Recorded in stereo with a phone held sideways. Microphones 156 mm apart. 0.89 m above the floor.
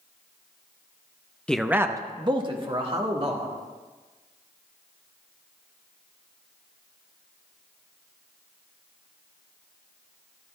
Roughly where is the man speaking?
Centre.